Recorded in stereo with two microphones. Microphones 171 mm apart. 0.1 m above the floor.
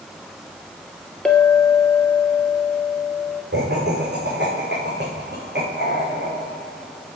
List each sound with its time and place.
1.2 s a clink: 5° left (ahead or behind), 1.7 m
3.5 s laughter: 80° right, 6 m